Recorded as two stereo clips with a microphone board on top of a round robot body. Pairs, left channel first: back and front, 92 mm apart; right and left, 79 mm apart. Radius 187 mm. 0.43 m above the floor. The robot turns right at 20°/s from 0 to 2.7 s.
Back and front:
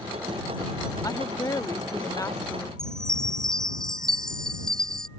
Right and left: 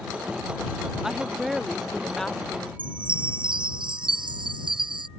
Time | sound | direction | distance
1.0 | a woman speaking | 170° left | ?
2.8 | a chime | 95° left | ?